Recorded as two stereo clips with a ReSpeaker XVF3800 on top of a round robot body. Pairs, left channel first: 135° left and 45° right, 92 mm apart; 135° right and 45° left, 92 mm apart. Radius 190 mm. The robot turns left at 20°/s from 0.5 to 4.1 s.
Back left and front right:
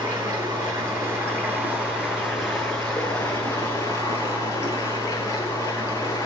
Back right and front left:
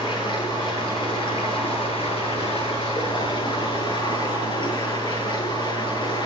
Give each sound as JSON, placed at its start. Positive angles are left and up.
{"t": 0.0, "sound": "running water", "azimuth_deg": -95, "distance_m": 7.0}